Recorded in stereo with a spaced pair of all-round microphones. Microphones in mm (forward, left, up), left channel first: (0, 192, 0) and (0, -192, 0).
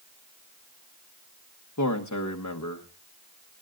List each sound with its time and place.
1.8 s a man speaking: 50° left (ahead or behind), 1.3 m